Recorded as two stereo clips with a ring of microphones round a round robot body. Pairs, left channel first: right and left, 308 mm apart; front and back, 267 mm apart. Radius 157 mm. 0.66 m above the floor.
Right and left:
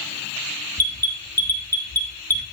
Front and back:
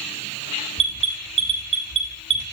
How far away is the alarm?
About 1.6 m.